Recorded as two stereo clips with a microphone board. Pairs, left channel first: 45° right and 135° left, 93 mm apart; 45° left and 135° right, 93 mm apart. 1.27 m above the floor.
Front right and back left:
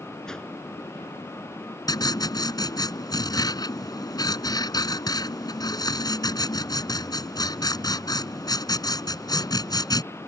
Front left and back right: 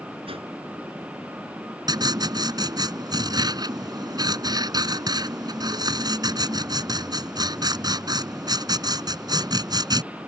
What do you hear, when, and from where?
0.3 s a whoosh: 130° right
1.9 s writing: 90° right